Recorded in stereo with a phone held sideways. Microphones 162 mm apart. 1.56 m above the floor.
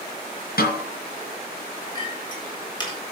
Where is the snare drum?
70° left (ahead or behind), 5 m.